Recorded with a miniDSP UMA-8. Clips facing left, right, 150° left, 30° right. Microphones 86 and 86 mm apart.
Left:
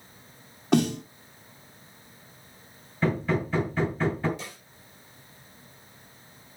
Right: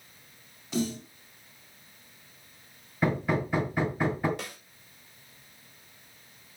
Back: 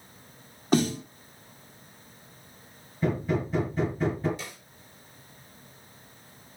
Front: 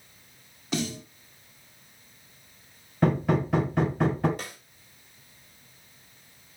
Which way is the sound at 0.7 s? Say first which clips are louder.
Left 8 dB, back 7 dB; 105° left.